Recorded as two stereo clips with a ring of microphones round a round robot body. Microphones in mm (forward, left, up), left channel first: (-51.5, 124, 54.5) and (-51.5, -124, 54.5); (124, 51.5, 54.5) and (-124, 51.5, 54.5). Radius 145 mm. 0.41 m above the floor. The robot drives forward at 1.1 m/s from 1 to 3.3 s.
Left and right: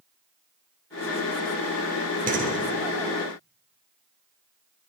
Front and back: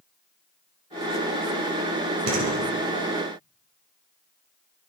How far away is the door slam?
About 5.5 m.